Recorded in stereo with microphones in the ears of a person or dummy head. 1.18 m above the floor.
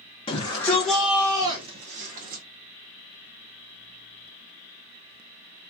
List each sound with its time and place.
0.3 s a shout: 25° left (ahead or behind), 0.8 m; by 2.4 s 55° right (ahead or behind), 1.0 m